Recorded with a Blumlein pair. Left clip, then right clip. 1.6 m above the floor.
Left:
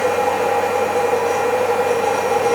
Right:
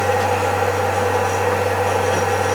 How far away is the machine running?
About 1.6 m.